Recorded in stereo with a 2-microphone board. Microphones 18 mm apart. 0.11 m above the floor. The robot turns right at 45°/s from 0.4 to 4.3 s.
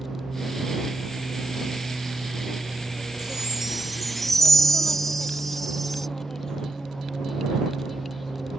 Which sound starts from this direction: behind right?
An aircraft, at 0.0 s.